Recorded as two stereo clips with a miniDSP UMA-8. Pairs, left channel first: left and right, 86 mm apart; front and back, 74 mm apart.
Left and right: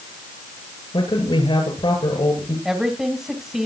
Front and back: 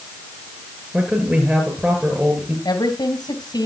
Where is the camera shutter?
I don't hear a camera shutter.